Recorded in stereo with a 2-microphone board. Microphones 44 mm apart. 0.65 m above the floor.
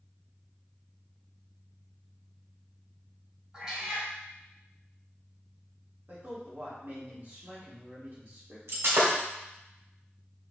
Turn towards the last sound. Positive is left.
turn(degrees=-85)